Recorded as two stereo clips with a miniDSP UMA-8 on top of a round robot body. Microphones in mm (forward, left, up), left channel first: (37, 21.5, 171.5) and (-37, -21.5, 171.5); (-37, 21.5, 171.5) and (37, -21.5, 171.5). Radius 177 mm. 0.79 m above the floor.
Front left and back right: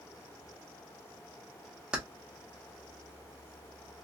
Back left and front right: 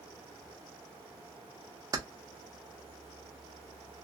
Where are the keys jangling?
70° right, 0.7 m.